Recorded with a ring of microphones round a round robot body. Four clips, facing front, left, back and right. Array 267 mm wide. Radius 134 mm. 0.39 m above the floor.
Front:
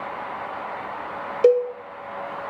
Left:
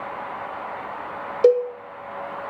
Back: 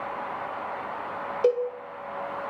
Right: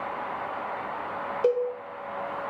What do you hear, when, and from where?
1.4 s a cowbell: 55° left, 0.6 m